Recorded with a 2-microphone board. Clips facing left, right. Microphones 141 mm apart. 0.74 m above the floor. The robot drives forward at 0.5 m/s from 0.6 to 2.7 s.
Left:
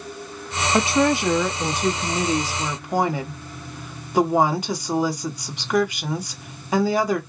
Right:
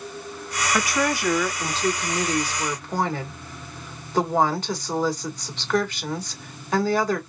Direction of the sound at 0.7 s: 25° left (ahead or behind).